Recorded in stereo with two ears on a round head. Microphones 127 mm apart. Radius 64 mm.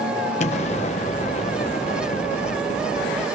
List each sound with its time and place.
0.4 s an explosion: 50° left (ahead or behind), 1.0 m